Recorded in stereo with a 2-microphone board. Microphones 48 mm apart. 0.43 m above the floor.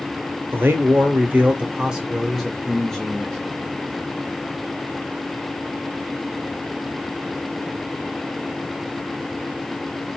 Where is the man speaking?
45° right (ahead or behind), 1.0 m; by 3.4 s 10° left (ahead or behind), 1.3 m.